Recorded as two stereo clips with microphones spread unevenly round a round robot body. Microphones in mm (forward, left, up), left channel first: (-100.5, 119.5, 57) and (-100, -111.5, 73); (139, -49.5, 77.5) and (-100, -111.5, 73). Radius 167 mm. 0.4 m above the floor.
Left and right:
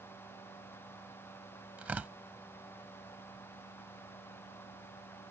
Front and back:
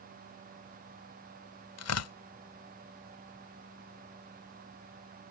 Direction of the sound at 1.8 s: 5° right.